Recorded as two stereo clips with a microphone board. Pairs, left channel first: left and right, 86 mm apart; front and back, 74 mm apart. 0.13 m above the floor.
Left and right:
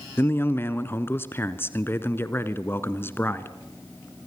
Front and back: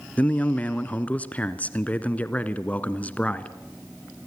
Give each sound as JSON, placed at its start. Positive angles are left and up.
{"t": 0.2, "sound": "a man speaking", "azimuth_deg": 55, "distance_m": 1.6}